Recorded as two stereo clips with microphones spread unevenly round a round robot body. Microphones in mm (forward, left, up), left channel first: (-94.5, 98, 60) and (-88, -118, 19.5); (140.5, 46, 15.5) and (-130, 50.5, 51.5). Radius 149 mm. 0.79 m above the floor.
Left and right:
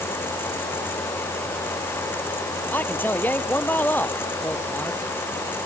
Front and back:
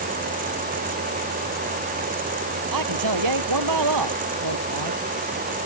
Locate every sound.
2.7 s a man speaking: 175° left